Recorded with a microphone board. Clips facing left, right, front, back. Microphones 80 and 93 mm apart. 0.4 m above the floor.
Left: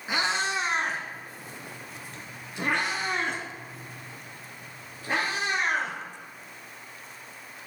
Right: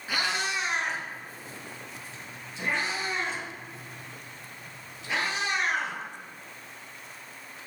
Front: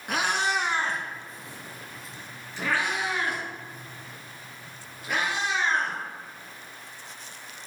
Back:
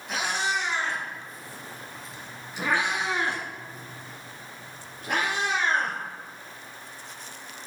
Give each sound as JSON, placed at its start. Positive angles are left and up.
{"t": 0.1, "sound": "a cat meowing", "azimuth_deg": 20, "distance_m": 1.1}